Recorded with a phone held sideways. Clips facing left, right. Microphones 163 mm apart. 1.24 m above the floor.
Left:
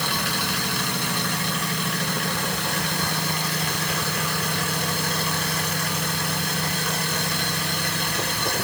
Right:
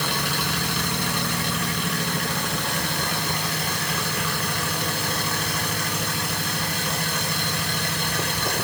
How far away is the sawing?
I don't hear sawing.